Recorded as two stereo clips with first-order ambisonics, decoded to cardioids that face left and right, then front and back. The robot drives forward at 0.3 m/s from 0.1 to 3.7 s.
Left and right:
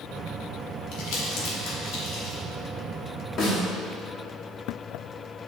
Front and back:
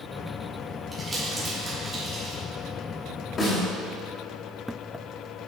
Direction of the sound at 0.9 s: 105° left.